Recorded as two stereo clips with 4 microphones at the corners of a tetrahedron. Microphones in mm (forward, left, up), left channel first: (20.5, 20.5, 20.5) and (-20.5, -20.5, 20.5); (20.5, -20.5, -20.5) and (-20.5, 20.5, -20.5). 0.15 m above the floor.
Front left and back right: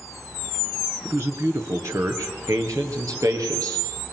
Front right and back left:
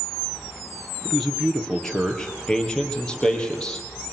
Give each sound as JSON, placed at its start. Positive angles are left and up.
{"t": 1.1, "sound": "a man speaking", "azimuth_deg": -135, "distance_m": 2.5}